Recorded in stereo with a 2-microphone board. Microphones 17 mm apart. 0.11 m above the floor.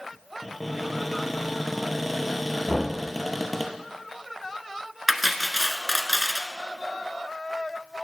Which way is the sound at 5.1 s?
10° right (ahead or behind).